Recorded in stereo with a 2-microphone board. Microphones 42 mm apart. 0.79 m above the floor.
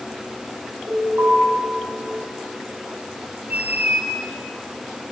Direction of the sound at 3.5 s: 40° right (ahead or behind).